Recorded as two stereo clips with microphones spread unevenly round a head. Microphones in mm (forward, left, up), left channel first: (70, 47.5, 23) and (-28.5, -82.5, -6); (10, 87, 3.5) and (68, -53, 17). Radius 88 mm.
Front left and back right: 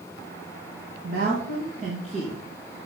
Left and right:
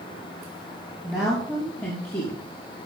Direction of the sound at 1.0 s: 155° right.